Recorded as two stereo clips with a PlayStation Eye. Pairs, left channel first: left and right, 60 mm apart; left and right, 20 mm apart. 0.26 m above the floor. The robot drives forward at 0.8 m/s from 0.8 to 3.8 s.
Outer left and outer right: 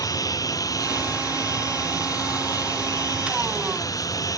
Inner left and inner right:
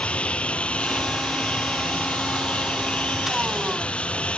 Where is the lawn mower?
75° left (ahead or behind).